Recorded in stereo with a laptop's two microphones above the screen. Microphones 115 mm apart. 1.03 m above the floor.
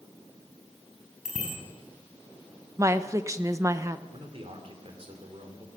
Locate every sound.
1.2 s a bicycle bell: 80° right, 6 m
2.8 s a woman speaking: 25° right (ahead or behind), 0.7 m
4.1 s a man speaking: 50° right (ahead or behind), 3 m